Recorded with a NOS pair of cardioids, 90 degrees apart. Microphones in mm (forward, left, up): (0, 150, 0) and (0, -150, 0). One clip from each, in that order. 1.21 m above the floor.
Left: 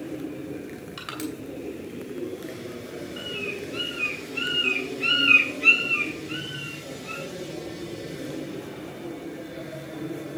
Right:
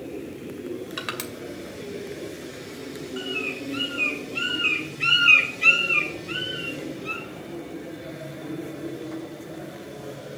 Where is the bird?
40° right, 4 m.